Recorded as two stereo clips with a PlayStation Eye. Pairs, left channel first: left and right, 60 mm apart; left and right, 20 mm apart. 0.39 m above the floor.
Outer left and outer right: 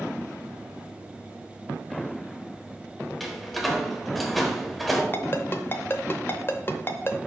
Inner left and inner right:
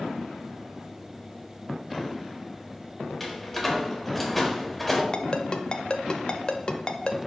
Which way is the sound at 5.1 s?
40° left (ahead or behind).